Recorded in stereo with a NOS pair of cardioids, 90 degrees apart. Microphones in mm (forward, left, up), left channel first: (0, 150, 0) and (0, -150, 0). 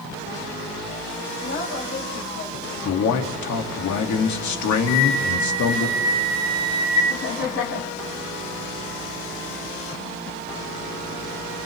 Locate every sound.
1.4 s a woman speaking: 50° left, 5.5 m; by 2.7 s 55° left, 7 m
2.8 s a man speaking: 70° left, 2.5 m
4.9 s a flute: 60° left, 5.5 m
7.1 s laughter: 65° left, 4 m